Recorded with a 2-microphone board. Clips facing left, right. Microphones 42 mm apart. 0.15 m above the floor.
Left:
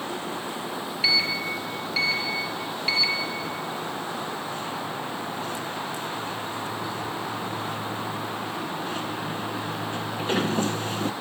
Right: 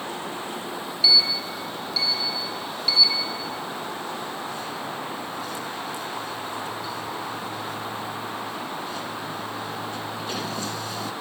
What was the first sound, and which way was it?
A sliding door, 45° left (ahead or behind).